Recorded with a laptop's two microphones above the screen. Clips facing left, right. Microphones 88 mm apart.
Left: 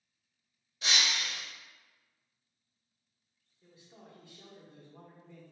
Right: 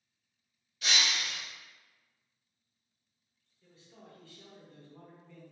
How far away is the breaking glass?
About 0.8 m.